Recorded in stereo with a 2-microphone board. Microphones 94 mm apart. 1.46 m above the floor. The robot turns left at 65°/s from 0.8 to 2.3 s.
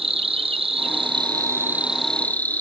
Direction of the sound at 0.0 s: 100° right.